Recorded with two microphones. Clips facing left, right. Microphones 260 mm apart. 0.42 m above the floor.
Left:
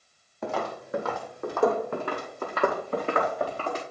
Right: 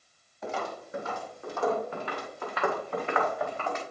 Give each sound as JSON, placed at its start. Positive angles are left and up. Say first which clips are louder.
{"t": 0.4, "sound": "footsteps", "louder": "left 4 dB", "side_deg": 60, "distance_m": 1.0}